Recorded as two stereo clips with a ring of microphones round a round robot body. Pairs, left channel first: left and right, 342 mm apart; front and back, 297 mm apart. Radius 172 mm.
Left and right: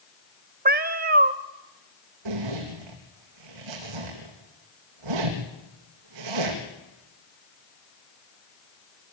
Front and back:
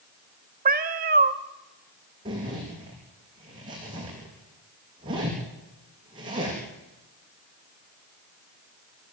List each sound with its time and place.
0.7 s a cat meowing: 140° right, 0.6 m
2.2 s a zipper: 100° right, 3.5 m